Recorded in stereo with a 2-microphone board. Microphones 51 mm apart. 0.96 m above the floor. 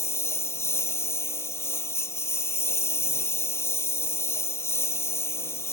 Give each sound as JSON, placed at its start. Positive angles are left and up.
{"t": 0.0, "sound": "a lawn mower", "side_deg": 55}